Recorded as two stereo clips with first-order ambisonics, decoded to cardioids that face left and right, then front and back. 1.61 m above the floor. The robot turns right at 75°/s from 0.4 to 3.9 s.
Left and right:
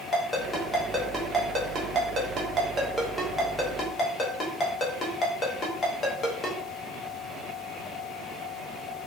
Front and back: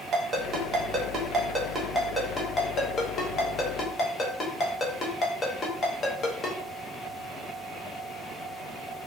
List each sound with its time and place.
0.1 s a ringtone: 145° left, 0.5 m; by 6.6 s 45° left, 0.5 m